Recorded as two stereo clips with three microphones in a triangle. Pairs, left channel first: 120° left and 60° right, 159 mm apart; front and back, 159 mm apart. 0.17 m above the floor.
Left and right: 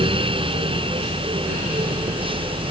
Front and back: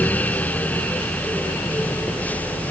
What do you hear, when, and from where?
Only background noise.